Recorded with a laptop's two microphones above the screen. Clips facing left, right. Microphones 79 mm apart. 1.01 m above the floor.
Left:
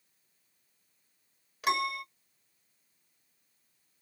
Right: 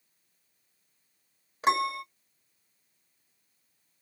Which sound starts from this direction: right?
A piano, at 1.6 s.